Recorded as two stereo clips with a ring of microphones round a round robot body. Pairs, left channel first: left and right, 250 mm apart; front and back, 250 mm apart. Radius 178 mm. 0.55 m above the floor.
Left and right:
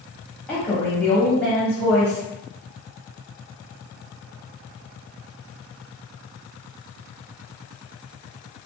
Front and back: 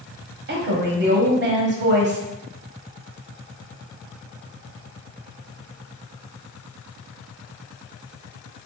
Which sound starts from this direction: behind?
A woman speaking, at 0.5 s.